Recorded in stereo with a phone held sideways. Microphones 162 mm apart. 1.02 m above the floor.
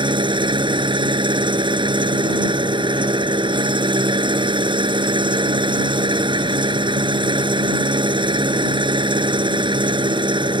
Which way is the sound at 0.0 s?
30° right (ahead or behind).